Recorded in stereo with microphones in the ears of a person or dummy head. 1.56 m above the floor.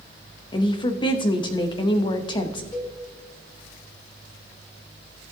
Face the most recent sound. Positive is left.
turn(degrees=15)  # may be behind; listen again after turning